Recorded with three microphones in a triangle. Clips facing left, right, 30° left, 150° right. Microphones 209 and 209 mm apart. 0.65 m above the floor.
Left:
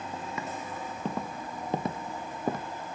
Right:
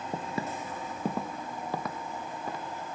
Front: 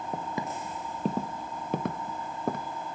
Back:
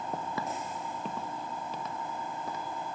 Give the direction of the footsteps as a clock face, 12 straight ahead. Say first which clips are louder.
Right 4 dB, front 2 dB; 2 o'clock.